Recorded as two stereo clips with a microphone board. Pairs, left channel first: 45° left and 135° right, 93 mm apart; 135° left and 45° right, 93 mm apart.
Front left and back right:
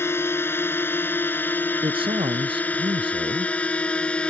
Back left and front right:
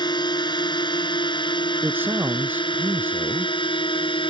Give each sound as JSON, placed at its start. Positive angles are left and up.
{"t": 0.0, "sound": "a drone", "azimuth_deg": 105}
{"t": 1.8, "sound": "a man speaking", "azimuth_deg": -115}